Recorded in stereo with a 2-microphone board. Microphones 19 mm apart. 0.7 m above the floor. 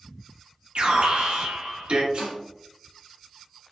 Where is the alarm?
60° right (ahead or behind), 0.8 m.